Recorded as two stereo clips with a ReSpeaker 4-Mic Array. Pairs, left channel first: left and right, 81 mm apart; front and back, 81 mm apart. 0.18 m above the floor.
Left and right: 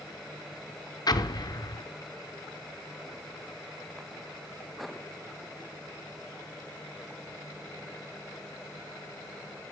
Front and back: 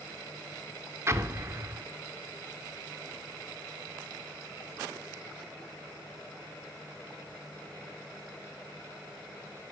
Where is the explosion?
125° left, 0.5 m.